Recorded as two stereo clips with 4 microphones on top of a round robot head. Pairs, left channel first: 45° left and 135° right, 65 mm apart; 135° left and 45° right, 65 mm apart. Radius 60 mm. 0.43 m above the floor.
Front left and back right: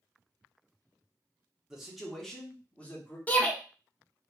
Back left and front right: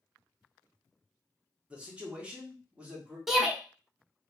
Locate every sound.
1.7 s a man speaking: 80° right, 1.1 m; by 3.2 s 10° left, 1.3 m
3.3 s a shout: 30° left, 0.9 m